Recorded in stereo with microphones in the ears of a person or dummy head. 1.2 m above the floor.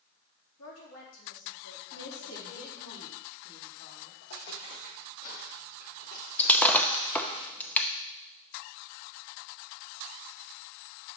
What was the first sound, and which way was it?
A woman speaking, 80° left.